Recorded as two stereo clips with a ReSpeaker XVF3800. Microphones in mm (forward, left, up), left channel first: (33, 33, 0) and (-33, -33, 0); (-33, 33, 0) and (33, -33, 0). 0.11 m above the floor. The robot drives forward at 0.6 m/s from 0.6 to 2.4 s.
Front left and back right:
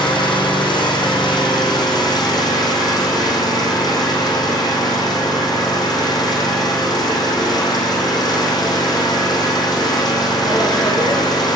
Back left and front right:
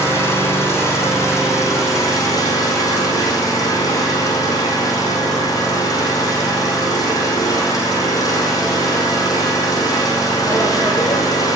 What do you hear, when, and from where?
0.0 s an engine running: 75° left, 5 m; by 11.6 s 85° left, 5 m